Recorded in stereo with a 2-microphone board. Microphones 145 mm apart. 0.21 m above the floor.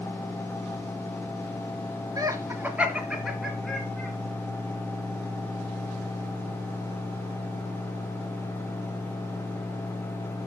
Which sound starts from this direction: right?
Laughter, at 2.2 s.